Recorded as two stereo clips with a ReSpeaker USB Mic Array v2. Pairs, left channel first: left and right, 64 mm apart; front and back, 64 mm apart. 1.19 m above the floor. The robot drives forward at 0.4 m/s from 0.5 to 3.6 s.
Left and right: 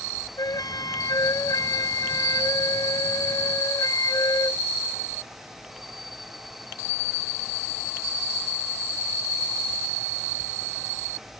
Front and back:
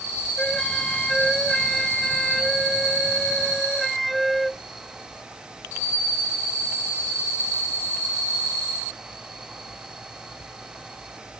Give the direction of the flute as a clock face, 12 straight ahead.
9 o'clock.